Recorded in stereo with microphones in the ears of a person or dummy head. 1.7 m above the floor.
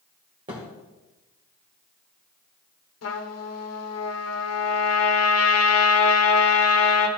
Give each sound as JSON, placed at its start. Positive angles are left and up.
{"t": 0.5, "sound": "a thud", "side_deg": -20, "distance_m": 1.4}
{"t": 3.0, "sound": "a trumpet", "side_deg": 85, "distance_m": 1.2}